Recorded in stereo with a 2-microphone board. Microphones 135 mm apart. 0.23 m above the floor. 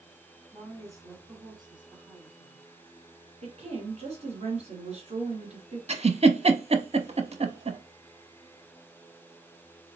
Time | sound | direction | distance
0.5 | a woman speaking | 20° right (ahead or behind) | 2 m
3.4 | a woman speaking | 55° right (ahead or behind) | 3 m
5.9 | a giggle | 50° right (ahead or behind) | 0.6 m